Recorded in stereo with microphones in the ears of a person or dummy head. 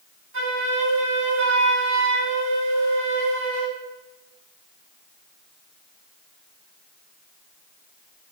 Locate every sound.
0.3 s a flute: 65° right (ahead or behind), 3 m